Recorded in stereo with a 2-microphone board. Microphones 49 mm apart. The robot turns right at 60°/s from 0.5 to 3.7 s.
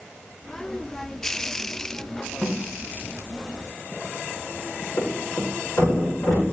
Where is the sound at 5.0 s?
75° left (ahead or behind), 7 m.